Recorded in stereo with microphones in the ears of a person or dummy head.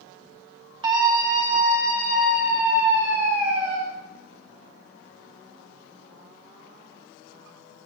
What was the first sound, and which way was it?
A scream, 25° right (ahead or behind).